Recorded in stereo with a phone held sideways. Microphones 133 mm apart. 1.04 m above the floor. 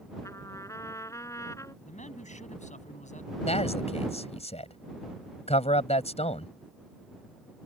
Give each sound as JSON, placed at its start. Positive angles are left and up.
{"t": 0.2, "sound": "a trumpet", "side_deg": 20}
{"t": 1.9, "sound": "a man speaking", "side_deg": 65}
{"t": 3.5, "sound": "a man speaking", "side_deg": 55}